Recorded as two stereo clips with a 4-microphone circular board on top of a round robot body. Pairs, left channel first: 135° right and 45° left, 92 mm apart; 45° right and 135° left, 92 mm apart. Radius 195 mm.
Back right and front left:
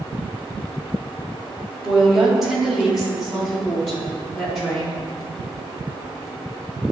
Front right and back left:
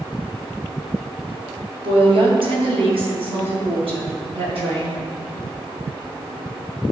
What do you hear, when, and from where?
1.8 s a woman speaking: 130° left, 2.5 m; by 5.0 s 135° left, 5.5 m